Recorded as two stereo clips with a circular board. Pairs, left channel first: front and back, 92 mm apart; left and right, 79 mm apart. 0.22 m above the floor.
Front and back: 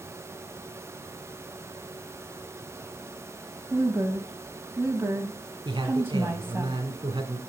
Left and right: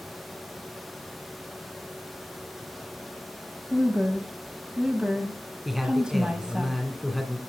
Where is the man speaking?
Straight behind, 1.7 m.